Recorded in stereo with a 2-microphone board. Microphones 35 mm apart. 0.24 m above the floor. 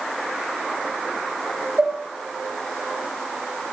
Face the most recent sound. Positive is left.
turn(degrees=-30)  # may be behind; listen again after turning